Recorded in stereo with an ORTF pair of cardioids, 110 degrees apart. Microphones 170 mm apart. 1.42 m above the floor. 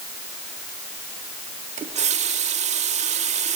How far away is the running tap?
About 2.0 m.